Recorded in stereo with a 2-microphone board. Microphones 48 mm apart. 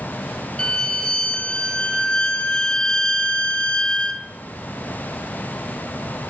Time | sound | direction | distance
0.6 | a violin | 20° left (ahead or behind) | 0.6 m